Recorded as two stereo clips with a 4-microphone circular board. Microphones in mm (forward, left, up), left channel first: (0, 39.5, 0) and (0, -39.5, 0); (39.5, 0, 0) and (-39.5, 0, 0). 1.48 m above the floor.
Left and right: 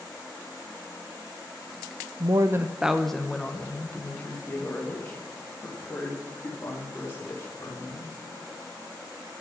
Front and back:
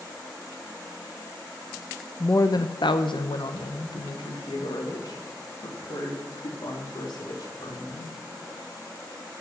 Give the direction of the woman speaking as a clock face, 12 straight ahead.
2 o'clock.